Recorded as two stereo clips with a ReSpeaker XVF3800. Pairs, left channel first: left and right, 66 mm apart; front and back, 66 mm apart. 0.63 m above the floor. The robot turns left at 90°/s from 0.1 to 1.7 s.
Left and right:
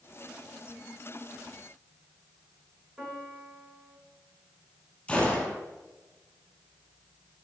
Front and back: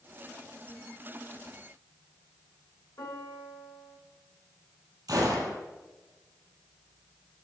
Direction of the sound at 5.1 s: 160° left.